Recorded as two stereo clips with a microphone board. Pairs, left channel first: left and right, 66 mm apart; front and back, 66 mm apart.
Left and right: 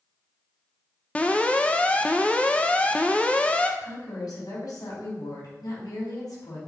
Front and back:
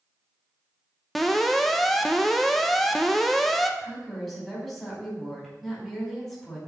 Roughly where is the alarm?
Left.